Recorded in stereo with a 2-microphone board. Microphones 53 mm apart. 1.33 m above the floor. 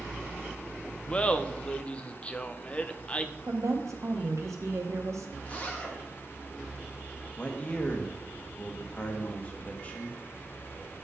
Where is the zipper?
30° left (ahead or behind), 1.8 m.